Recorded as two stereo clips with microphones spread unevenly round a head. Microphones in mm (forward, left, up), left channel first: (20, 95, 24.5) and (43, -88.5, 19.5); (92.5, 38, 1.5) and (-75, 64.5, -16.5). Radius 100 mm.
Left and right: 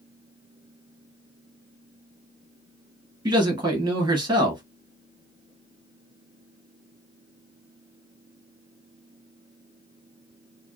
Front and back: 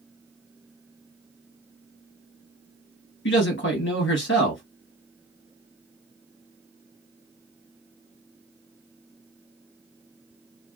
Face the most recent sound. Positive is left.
turn(degrees=-20)